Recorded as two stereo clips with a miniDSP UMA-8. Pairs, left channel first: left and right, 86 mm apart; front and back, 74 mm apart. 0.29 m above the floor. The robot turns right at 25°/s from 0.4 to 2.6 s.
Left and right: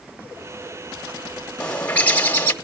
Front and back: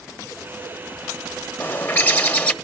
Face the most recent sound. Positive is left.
turn(degrees=50)